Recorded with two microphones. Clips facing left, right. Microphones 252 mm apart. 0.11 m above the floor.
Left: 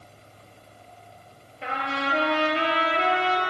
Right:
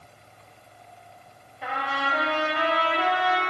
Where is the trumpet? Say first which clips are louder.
Left 2 dB; 30° left (ahead or behind), 0.8 m.